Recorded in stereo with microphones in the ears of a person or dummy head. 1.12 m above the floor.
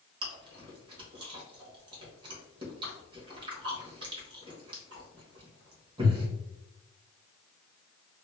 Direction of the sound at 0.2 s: 25° right (ahead or behind).